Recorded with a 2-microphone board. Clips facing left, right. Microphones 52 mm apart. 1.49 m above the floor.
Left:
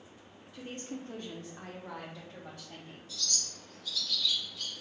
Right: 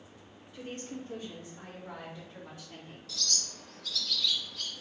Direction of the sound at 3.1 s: 75° right (ahead or behind).